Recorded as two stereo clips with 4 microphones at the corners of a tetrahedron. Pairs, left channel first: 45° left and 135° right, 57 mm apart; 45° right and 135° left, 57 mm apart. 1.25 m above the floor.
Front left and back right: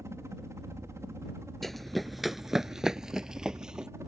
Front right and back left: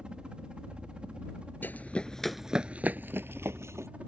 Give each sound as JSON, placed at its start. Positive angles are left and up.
{"t": 0.0, "sound": "a helicopter", "azimuth_deg": -155}
{"t": 1.6, "sound": "running footsteps", "azimuth_deg": -35}